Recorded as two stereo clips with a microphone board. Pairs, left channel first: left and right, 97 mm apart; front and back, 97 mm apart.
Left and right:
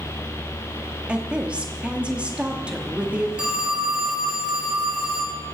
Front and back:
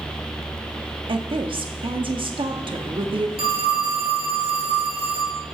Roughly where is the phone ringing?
Behind.